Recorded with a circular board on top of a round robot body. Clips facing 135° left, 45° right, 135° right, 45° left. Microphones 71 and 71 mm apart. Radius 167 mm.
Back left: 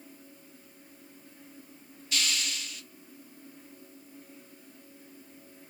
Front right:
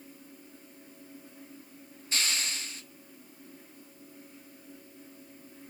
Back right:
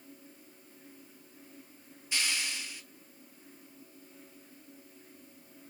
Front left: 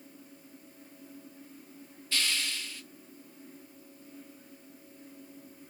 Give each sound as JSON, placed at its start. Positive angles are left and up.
{"t": 2.1, "sound": "a hiss", "azimuth_deg": -75, "distance_m": 1.3}